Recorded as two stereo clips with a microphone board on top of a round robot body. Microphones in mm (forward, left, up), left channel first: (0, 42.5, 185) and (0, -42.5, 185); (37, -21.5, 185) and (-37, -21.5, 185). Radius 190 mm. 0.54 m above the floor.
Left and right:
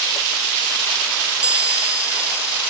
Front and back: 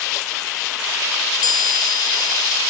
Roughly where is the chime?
Ahead.